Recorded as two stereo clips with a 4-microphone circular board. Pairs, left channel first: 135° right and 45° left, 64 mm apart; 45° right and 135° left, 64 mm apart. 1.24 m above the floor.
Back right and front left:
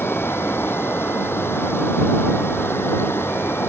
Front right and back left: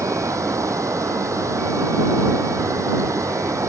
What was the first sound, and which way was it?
Running water, 175° left.